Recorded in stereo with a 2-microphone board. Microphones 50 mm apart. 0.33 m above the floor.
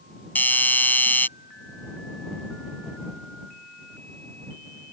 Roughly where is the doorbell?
Left.